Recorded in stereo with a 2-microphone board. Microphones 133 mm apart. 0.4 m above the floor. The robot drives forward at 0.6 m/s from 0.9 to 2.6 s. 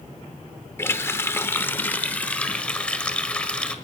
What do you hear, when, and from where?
0.8 s a running tap: 15° left (ahead or behind), 0.6 m; by 3.8 s 10° left (ahead or behind), 1.1 m